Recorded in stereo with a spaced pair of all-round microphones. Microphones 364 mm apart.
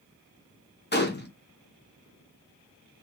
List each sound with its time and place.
0.9 s a gunshot: 30° left (ahead or behind), 0.8 m